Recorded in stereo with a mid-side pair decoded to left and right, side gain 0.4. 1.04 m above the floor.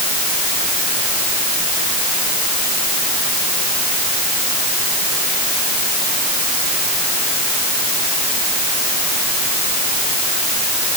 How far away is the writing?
No writing in this recording.